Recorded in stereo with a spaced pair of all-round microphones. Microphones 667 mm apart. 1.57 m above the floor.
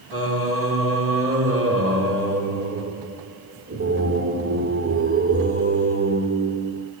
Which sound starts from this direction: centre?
Singing, at 0.1 s.